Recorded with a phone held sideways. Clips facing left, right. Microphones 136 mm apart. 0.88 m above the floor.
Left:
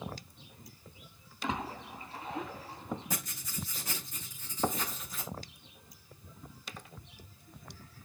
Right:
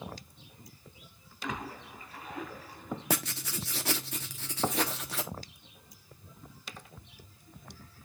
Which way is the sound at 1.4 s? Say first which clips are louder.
Left 2 dB; 30° left (ahead or behind).